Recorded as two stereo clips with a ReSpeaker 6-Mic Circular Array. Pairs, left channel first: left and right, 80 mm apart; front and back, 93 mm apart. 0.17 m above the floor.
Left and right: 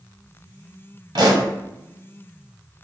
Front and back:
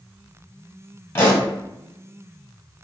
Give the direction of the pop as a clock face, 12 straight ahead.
2 o'clock.